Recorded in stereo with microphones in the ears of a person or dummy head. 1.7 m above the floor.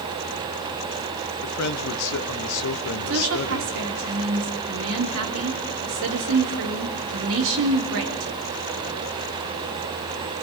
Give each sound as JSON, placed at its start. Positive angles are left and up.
{"t": 1.4, "sound": "a man speaking", "side_deg": 85, "distance_m": 1.3}
{"t": 3.1, "sound": "a woman speaking", "side_deg": -75, "distance_m": 3.5}